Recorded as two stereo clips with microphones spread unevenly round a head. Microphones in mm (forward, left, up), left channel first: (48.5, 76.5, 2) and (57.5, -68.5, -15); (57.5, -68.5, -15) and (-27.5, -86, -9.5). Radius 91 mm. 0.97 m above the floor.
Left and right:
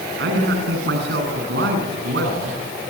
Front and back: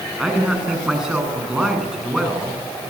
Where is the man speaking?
85° right, 9.5 m.